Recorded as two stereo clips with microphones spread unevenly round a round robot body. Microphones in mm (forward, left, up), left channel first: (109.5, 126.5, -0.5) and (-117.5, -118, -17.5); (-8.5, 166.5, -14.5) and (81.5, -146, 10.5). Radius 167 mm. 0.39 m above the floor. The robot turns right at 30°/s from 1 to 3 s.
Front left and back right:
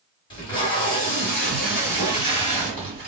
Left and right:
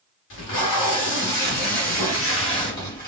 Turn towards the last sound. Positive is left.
turn(degrees=-175)